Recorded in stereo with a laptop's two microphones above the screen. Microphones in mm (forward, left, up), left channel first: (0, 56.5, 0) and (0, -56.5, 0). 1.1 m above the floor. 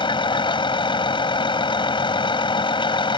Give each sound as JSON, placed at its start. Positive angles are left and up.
{"t": 0.0, "sound": "a vehicle", "side_deg": 50}